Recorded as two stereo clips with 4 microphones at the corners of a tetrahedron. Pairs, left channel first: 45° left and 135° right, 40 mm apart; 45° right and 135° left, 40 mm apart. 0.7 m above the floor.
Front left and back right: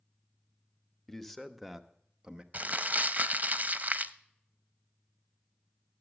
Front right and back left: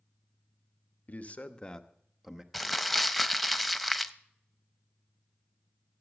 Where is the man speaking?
40° right, 1.2 m; by 2.4 s 165° right, 1.0 m.